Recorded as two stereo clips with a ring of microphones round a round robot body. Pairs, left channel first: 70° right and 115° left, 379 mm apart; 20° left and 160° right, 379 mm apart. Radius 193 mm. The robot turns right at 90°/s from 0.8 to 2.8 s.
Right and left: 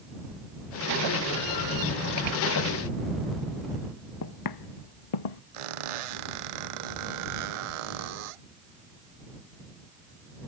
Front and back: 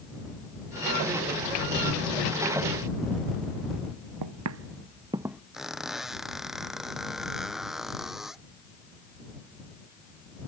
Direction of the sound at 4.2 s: 120° right.